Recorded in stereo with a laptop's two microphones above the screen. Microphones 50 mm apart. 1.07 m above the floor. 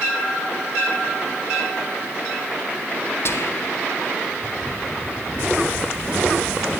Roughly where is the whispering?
Left.